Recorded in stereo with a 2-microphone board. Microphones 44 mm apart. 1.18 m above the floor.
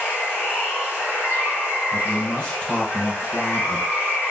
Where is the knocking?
No knocking in this recording.